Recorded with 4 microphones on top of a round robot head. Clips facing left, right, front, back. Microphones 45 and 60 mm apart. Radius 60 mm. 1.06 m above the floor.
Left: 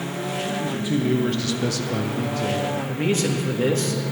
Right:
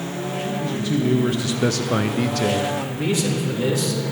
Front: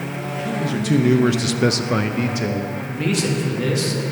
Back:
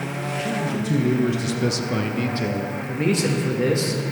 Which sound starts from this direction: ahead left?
A man speaking, at 0.6 s.